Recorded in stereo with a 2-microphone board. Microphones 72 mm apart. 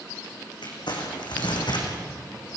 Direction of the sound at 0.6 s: 80° left.